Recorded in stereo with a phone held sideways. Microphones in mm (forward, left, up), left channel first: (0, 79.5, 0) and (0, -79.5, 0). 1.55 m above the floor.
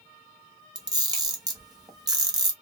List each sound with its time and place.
0.8 s a camera shutter: 25° right (ahead or behind), 1.3 m